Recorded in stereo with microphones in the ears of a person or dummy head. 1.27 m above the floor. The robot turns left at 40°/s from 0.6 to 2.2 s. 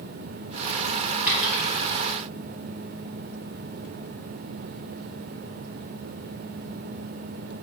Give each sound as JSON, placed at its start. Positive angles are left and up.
{"t": 1.3, "sound": "a dropped coin", "side_deg": -10, "distance_m": 2.5}